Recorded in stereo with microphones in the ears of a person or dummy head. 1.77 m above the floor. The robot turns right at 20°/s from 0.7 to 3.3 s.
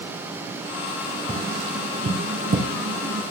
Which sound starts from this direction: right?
Tapping, at 1.3 s.